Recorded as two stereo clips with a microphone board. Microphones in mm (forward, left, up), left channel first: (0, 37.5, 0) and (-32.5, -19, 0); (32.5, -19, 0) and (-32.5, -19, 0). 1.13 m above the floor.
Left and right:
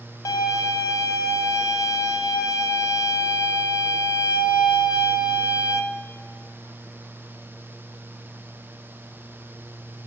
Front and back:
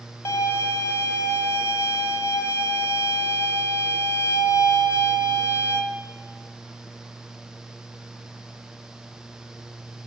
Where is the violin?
45° left, 0.5 m.